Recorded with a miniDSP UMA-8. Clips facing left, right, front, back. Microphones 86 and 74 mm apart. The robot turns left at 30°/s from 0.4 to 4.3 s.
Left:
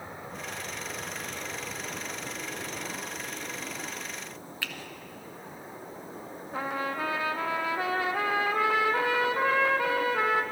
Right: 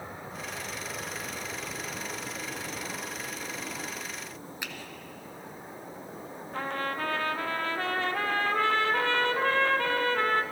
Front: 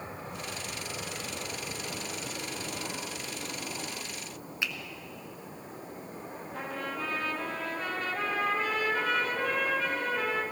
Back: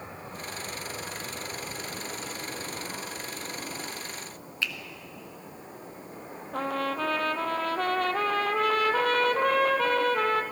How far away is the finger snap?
About 0.9 m.